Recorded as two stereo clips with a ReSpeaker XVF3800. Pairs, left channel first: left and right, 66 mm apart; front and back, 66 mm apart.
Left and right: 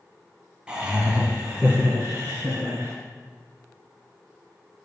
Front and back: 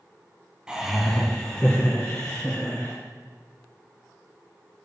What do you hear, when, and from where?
0.7 s laughter: 135° right, 1.4 m; by 3.0 s 30° right, 2.5 m